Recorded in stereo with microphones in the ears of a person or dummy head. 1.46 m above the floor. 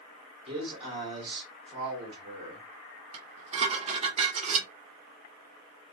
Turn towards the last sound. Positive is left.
turn(degrees=-40)  # may be behind; listen again after turning